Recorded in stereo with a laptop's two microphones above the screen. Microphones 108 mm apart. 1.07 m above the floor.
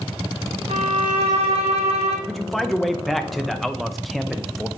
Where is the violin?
70° right (ahead or behind), 1.8 m.